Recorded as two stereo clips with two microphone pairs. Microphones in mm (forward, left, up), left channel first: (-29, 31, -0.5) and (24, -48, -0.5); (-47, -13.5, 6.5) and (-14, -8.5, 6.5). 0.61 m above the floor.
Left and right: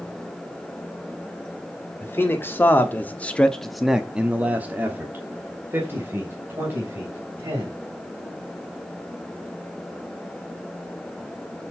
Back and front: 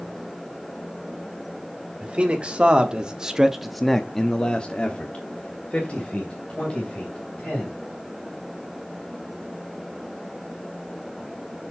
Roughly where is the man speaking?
Ahead left.